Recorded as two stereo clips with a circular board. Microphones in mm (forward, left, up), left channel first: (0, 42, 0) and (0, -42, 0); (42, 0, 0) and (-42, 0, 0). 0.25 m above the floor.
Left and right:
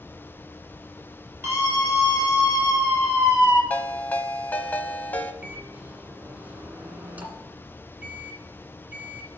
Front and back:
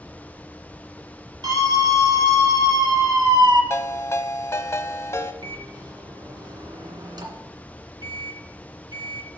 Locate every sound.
1.4 s a scream: 155° right, 4.5 m
3.7 s a ringtone: 30° left, 0.9 m
5.4 s a microwave: 155° right, 1.7 m